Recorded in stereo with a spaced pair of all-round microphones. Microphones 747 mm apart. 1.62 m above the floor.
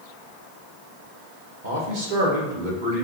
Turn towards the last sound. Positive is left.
turn(degrees=-80)